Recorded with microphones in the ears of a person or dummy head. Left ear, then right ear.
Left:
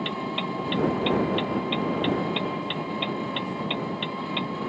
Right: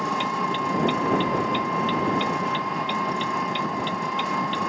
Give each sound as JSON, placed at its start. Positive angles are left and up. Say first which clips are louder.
{"t": 0.0, "sound": "an engine running", "louder": "right 5 dB", "side_deg": -45}